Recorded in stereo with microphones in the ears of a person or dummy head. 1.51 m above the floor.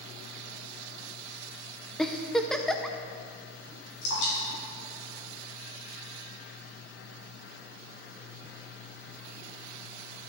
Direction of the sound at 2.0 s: 5° left (ahead or behind).